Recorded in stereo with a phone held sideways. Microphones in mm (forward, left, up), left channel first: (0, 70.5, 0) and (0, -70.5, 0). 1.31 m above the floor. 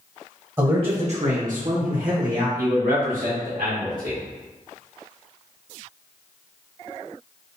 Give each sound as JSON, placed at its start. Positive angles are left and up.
{"t": 0.6, "sound": "a man speaking", "side_deg": -25, "distance_m": 0.6}
{"t": 2.6, "sound": "a man speaking", "side_deg": -90, "distance_m": 1.2}